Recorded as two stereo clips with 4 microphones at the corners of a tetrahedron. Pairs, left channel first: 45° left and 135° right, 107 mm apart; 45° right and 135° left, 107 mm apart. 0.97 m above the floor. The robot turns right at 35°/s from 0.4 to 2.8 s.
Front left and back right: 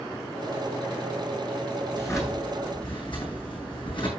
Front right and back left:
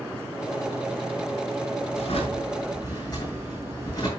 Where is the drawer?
25° right, 8 m; by 4.1 s 5° left, 8 m.